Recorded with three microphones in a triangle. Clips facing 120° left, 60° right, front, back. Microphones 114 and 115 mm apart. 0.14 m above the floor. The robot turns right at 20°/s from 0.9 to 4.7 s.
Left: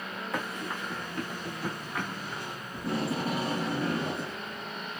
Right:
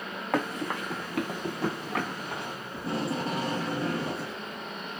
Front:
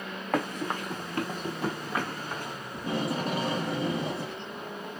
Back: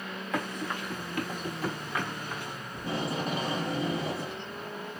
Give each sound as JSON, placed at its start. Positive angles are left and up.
{"t": 0.3, "sound": "running footsteps", "azimuth_deg": -35, "distance_m": 0.9}
{"t": 2.7, "sound": "tape being pulled", "azimuth_deg": 30, "distance_m": 3.0}